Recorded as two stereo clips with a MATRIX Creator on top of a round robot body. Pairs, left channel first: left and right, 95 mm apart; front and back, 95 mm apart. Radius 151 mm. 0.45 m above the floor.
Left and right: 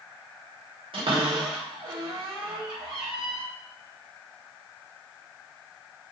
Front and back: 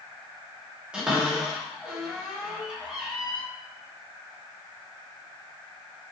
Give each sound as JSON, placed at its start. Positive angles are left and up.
{"t": 0.9, "sound": "a cupboard door", "azimuth_deg": -100, "distance_m": 3.0}